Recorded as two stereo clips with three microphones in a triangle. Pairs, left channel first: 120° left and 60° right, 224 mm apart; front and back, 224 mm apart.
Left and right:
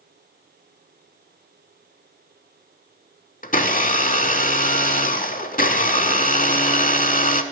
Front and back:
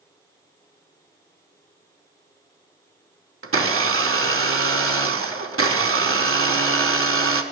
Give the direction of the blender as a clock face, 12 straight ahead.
6 o'clock.